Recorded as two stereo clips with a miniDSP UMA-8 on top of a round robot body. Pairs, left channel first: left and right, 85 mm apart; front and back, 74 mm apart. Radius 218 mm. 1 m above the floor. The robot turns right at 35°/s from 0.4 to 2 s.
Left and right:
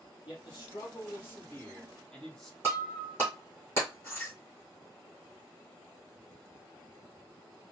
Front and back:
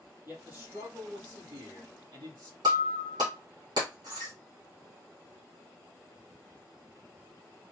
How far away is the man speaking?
About 3.5 m.